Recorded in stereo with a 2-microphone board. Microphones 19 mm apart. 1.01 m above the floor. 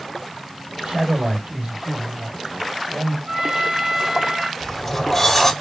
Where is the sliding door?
10° left (ahead or behind), 1.9 m.